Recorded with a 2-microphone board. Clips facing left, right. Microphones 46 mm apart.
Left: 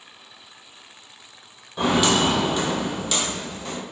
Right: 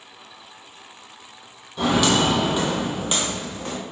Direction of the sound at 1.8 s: 15° left (ahead or behind).